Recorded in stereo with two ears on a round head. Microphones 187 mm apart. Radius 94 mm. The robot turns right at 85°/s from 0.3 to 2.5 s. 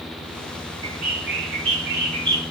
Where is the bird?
150° right, 1.2 m; by 2.4 s 20° right, 1.2 m.